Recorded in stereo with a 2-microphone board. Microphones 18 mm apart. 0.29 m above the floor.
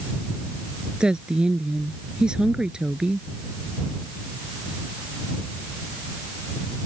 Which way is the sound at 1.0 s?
60° right (ahead or behind).